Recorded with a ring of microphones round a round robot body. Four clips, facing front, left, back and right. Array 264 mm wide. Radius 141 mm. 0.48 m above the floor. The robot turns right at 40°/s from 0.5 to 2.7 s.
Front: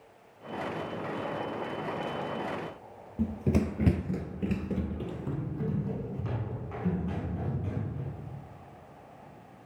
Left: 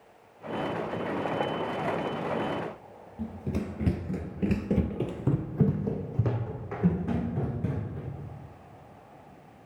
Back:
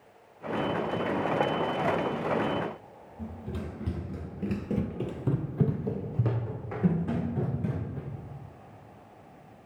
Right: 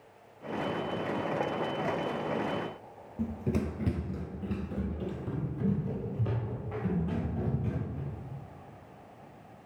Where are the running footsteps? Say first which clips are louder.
Right 2 dB, front 10 dB; 10° right, 0.9 m; by 8.1 s 135° left, 3 m.